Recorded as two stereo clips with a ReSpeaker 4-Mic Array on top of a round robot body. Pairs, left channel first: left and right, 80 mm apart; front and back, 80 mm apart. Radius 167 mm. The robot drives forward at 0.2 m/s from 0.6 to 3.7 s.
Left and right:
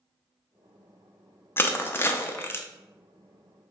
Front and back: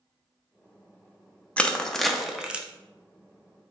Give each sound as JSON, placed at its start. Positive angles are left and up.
{"t": 1.6, "sound": "crushing", "azimuth_deg": 60, "distance_m": 0.6}